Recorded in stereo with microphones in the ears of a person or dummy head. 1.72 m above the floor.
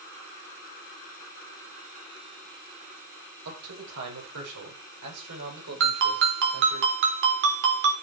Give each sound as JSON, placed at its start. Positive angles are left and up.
{"t": 3.5, "sound": "a man speaking", "side_deg": -80, "distance_m": 7.5}
{"t": 5.8, "sound": "a ringtone", "side_deg": -60, "distance_m": 3.5}